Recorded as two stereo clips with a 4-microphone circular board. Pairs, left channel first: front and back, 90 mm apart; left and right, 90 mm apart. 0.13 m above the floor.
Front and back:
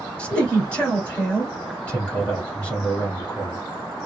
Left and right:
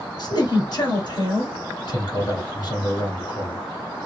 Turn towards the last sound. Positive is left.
turn(degrees=75)